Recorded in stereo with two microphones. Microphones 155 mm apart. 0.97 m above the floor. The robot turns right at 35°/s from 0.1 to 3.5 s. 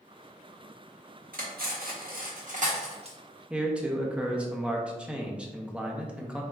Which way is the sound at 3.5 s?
10° right (ahead or behind).